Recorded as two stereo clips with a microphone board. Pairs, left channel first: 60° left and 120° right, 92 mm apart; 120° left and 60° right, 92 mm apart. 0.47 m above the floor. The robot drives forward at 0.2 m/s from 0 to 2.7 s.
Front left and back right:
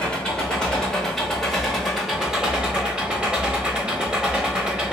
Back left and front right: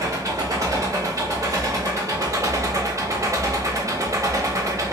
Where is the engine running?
20° right, 1.1 m; by 4.9 s 45° right, 0.8 m.